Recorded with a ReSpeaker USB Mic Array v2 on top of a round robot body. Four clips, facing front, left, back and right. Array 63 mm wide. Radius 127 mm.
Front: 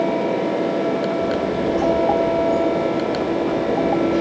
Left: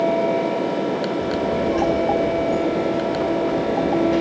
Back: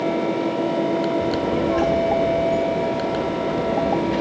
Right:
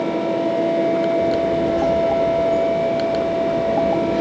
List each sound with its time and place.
1.2 s a child speaking: 155° left, 1.9 m